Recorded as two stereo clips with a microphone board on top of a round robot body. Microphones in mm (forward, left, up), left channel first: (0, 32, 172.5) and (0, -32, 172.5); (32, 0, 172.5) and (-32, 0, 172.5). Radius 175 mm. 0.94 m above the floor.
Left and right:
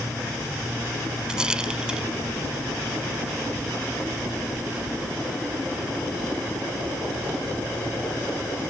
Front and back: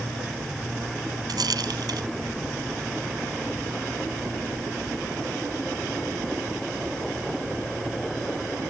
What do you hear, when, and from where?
1.3 s a rattle: 165° right